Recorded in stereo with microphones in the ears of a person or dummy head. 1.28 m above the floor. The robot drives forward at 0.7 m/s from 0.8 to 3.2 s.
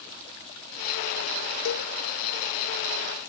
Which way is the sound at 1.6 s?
75° left (ahead or behind).